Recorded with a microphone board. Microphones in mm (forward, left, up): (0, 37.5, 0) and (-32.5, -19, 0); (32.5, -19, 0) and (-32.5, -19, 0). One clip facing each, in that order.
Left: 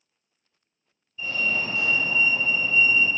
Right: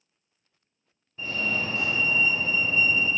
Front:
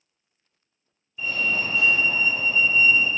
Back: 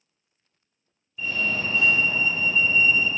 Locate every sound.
1.2 s a fire alarm: 85° right, 2.5 m